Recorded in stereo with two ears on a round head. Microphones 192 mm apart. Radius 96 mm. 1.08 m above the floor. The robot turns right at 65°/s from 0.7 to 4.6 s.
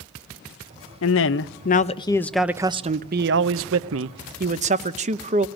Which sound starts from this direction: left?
A man speaking, at 1.0 s.